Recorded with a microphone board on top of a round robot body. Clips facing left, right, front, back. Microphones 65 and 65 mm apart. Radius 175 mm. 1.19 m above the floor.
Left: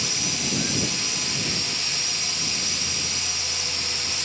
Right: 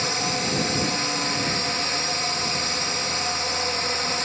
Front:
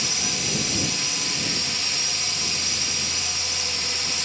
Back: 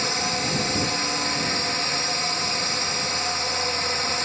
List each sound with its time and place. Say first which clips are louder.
0.0 s a drone: right 5 dB, back 5 dB; 135° right